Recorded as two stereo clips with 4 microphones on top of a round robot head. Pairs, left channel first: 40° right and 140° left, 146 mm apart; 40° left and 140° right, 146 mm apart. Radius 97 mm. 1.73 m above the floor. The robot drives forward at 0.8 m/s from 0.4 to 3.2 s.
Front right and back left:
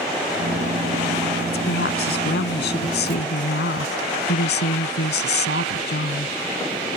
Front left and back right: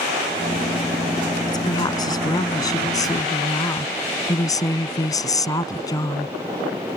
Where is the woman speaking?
25° right; by 6.3 s 30° right.